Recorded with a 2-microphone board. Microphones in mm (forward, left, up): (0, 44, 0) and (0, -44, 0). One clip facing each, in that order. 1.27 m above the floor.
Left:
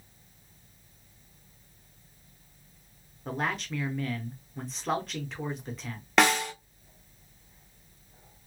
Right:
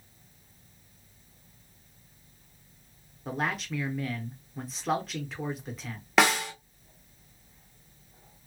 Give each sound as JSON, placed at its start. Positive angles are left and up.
{"t": 3.2, "sound": "a man speaking", "side_deg": 0, "distance_m": 1.0}
{"t": 6.2, "sound": "a snare drum", "side_deg": 0, "distance_m": 0.9}